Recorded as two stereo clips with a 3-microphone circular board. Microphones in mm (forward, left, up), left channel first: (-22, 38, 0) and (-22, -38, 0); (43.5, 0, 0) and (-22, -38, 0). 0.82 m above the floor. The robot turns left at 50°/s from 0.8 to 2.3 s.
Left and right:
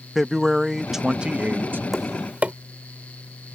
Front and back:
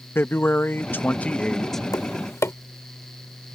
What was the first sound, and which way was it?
A man speaking, 5° right.